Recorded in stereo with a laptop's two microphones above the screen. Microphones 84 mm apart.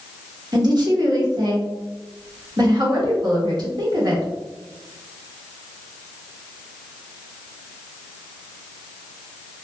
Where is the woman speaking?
55° right (ahead or behind), 1.2 m.